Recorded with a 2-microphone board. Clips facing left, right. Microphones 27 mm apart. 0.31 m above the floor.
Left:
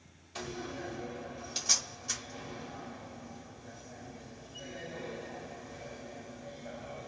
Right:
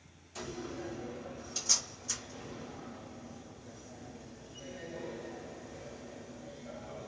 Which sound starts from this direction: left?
A door slam, at 0.3 s.